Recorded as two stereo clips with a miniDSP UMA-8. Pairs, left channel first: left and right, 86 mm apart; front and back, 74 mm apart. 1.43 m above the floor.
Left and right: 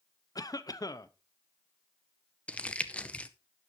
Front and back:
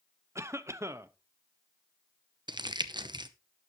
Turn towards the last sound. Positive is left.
turn(degrees=165)